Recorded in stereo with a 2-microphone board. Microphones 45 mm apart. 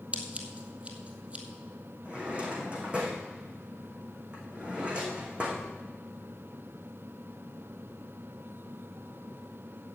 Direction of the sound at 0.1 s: 25° right (ahead or behind).